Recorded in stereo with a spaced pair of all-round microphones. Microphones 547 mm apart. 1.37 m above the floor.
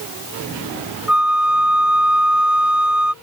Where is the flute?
Centre (ahead or behind).